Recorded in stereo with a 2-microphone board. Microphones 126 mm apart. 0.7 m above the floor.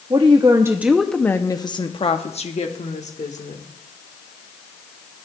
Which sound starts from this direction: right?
A woman speaking, at 0.1 s.